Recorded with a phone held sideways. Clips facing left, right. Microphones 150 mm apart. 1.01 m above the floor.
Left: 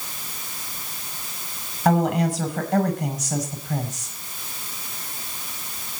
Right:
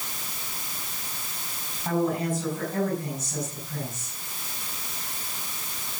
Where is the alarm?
No alarm in this recording.